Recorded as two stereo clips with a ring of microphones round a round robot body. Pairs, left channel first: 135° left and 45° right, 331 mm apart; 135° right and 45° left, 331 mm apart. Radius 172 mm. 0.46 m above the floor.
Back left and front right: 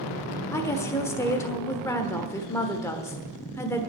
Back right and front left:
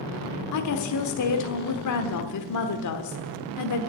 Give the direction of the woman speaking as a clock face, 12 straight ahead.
5 o'clock.